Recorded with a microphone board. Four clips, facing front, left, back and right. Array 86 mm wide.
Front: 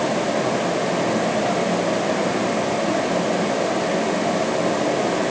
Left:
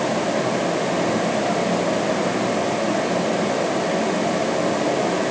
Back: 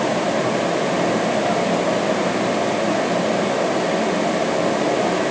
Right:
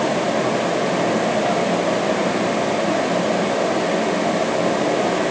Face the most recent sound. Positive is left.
No sound to turn to.